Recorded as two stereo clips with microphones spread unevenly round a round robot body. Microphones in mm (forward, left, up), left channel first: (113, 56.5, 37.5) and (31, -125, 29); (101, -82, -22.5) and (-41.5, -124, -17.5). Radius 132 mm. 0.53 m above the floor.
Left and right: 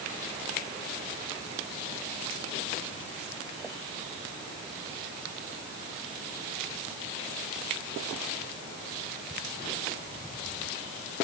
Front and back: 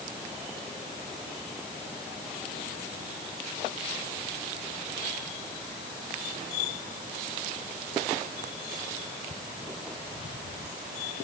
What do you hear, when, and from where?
Only background noise.